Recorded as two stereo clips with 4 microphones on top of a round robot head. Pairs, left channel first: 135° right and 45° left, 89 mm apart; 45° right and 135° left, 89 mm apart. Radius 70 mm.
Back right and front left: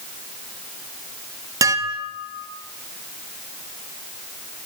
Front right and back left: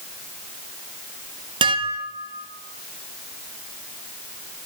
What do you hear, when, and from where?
1.6 s dishes clattering: 100° left, 1.8 m